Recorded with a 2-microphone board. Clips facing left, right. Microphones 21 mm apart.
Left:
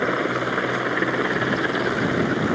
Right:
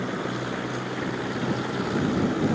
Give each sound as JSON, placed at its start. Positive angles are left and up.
{"t": 0.0, "sound": "a helicopter", "side_deg": 60}